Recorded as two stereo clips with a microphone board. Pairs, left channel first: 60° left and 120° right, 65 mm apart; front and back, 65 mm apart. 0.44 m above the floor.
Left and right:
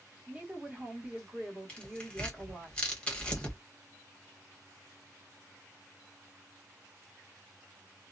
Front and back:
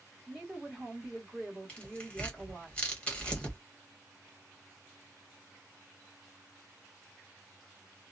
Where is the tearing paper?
25° left, 1.1 m.